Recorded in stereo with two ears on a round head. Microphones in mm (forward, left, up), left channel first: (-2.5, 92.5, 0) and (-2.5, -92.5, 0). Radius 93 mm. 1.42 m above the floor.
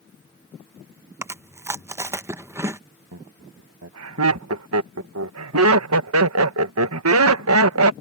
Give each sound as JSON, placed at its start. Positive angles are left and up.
{"t": 1.2, "sound": "chewing", "side_deg": -15}
{"t": 3.1, "sound": "laughter", "side_deg": -75}